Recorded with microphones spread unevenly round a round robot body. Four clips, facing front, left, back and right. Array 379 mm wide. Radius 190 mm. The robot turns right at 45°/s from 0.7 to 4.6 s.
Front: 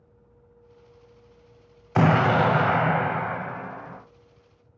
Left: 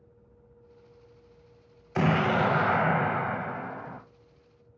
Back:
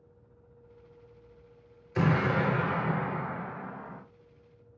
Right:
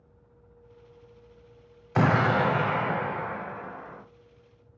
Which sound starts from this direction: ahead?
An explosion, at 1.9 s.